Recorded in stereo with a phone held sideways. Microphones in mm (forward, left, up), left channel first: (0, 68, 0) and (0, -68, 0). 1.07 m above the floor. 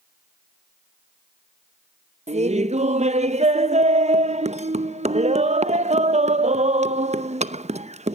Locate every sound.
2.3 s laughter: 55° right (ahead or behind), 0.7 m